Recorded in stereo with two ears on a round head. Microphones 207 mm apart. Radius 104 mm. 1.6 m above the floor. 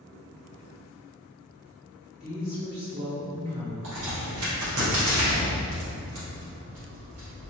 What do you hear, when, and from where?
2.2 s a woman speaking: 25° right (ahead or behind), 1.7 m
3.8 s a crack: 60° right (ahead or behind), 1.2 m